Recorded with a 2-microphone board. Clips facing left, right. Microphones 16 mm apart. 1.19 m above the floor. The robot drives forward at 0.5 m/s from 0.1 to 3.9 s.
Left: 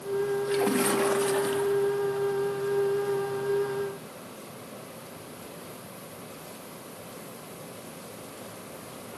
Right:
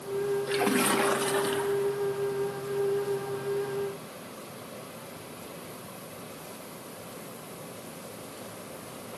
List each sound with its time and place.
0.5 s a splash: 20° right (ahead or behind), 0.7 m; by 2.0 s 10° right (ahead or behind), 1.3 m